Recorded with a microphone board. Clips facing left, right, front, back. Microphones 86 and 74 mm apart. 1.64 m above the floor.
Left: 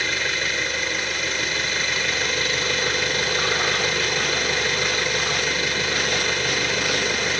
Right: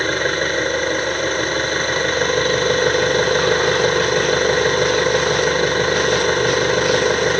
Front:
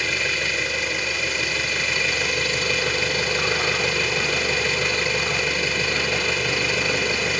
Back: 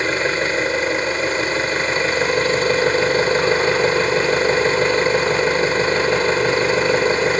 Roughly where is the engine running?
Behind right.